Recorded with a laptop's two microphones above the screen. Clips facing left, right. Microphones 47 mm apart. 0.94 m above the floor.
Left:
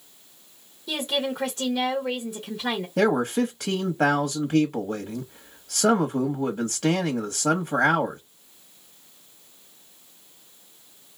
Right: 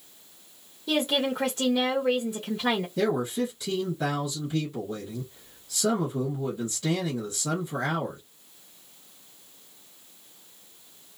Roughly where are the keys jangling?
I don't hear keys jangling.